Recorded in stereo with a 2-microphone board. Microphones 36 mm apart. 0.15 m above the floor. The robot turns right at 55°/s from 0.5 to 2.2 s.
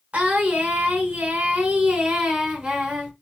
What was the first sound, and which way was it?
Singing, 120° right.